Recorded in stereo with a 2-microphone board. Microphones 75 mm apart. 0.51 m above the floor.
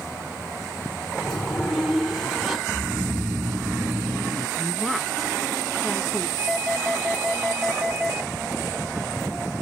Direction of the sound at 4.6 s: Centre (ahead or behind).